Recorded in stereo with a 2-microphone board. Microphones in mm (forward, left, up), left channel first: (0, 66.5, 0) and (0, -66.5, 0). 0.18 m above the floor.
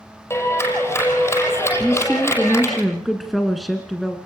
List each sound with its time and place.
0.3 s a clap: 20° left (ahead or behind), 6 m
1.8 s a woman speaking: centre (ahead or behind), 1.6 m